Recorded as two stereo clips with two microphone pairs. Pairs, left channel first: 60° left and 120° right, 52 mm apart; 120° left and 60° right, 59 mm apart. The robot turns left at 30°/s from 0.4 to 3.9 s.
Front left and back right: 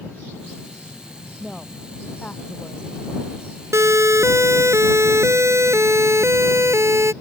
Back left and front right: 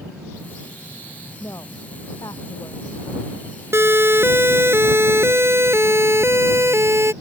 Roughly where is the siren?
Right.